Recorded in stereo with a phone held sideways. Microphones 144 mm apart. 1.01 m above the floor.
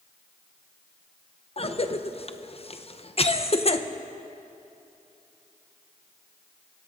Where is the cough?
45° left (ahead or behind), 0.7 m.